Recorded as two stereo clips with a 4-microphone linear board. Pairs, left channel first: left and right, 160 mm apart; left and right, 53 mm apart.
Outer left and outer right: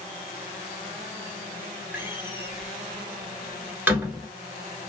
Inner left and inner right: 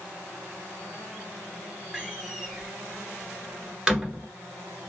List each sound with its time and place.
1.9 s a door slam: 10° right (ahead or behind), 1.1 m